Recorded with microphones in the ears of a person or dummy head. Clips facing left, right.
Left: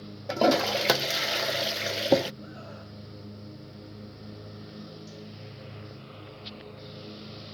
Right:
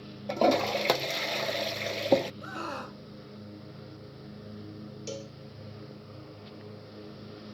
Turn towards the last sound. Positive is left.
turn(degrees=-85)